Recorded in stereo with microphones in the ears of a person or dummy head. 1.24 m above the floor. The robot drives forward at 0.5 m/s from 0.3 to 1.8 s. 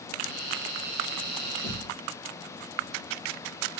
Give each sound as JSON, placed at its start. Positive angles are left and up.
{"t": 1.6, "sound": "a thud", "side_deg": 60, "distance_m": 1.2}